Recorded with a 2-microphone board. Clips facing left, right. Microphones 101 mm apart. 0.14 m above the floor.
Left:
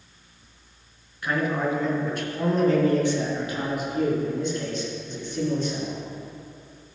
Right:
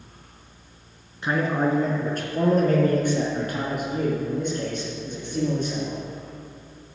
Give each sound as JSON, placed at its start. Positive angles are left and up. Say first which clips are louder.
{"t": 1.2, "sound": "a man speaking", "louder": "right 2 dB", "side_deg": -25, "distance_m": 1.3}